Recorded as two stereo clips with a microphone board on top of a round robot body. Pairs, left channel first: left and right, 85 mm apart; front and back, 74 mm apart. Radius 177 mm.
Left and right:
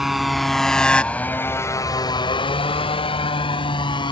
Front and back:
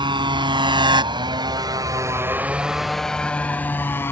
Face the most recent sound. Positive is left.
turn(degrees=60)